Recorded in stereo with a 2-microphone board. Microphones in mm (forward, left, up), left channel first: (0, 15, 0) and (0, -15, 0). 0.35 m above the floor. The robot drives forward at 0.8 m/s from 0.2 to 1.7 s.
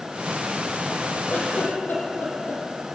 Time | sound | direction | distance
1.3 | a giggle | 60° left (ahead or behind) | 8 m